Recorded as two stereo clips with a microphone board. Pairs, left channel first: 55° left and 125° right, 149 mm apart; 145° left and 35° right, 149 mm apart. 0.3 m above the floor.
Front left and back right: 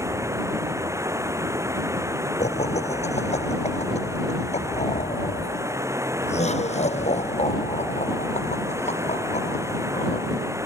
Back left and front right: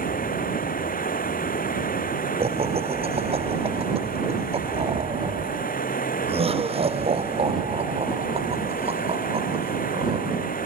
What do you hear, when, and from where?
0.0 s running water: 165° left
2.4 s laughter: 15° left